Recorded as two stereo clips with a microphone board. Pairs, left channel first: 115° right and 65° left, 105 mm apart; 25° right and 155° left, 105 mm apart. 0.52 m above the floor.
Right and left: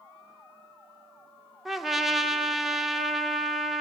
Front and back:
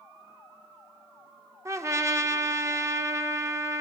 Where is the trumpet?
155° left, 0.7 m.